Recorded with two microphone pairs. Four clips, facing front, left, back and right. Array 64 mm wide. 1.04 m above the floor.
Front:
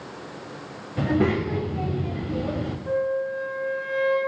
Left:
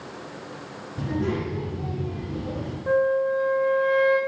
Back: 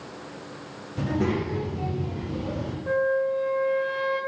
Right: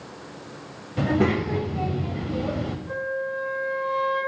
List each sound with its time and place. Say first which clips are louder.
1.0 s a child speaking: right 5 dB, front 4 dB; 55° right, 3 m
2.9 s a flute: left 11 dB, back 2 dB; 110° left, 6 m